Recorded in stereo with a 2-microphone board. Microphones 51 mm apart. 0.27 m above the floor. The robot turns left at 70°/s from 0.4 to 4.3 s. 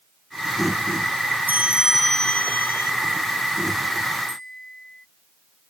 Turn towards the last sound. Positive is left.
turn(degrees=10)  # may be behind; listen again after turning